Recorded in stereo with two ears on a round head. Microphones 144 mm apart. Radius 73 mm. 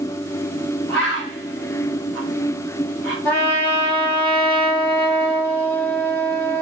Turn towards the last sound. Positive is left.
turn(degrees=15)  # may be behind; listen again after turning